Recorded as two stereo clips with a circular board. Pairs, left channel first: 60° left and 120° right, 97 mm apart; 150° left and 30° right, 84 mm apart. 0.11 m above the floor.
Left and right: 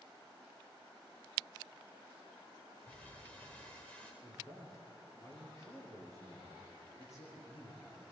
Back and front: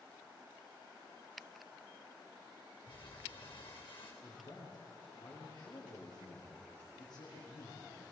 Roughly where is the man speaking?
Behind left.